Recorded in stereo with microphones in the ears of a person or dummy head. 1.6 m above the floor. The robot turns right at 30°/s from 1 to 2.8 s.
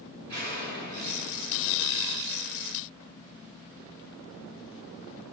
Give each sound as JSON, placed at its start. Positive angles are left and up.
{"t": 0.3, "sound": "an explosion", "azimuth_deg": -75, "distance_m": 2.5}